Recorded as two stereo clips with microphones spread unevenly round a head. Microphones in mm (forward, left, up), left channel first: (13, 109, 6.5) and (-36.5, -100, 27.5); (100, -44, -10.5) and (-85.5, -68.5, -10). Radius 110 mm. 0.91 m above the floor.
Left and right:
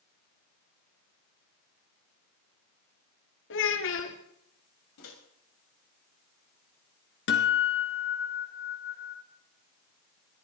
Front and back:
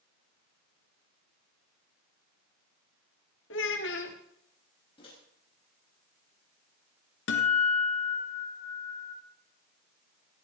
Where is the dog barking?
I don't hear a dog barking.